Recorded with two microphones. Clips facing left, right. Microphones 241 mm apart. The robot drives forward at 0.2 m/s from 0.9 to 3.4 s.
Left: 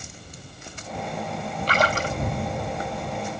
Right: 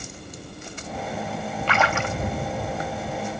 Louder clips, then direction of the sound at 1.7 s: Left 1 dB; 35° left (ahead or behind).